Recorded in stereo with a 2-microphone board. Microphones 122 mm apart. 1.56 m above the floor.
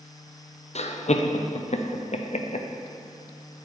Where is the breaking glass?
I don't hear breaking glass.